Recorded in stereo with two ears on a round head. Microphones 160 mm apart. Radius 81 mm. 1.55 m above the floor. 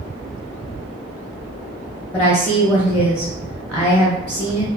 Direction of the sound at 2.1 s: Centre (ahead or behind).